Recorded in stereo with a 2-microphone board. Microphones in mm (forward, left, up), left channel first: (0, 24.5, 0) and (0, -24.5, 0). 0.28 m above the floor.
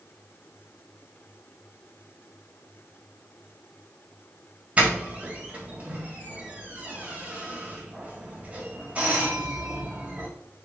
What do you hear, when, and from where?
4.8 s a doorbell: 30° right (ahead or behind), 2 m